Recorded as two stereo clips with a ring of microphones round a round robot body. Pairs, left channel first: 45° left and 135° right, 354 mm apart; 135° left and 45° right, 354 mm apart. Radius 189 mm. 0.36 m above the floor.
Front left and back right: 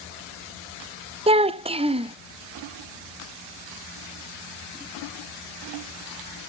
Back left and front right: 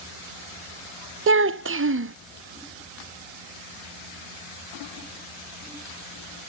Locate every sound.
1.3 s a child speaking: 70° right, 0.5 m